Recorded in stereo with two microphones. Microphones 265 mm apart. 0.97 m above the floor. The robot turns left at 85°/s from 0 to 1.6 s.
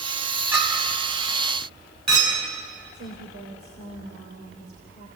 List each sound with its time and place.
0.5 s a clink: 5° right (ahead or behind), 6 m; by 2.4 s 80° right, 6 m
2.9 s a woman speaking: 55° right (ahead or behind), 3.5 m